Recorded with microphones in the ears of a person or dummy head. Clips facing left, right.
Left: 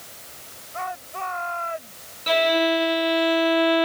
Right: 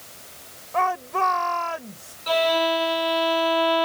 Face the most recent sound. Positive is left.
turn(degrees=30)  # may be behind; listen again after turning